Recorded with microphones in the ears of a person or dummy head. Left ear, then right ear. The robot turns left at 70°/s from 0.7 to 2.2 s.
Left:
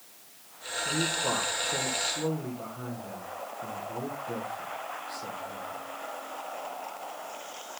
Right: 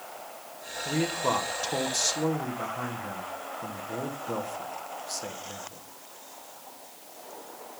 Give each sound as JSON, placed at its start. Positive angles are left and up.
{"t": 0.8, "sound": "a man speaking", "azimuth_deg": -35, "distance_m": 1.3}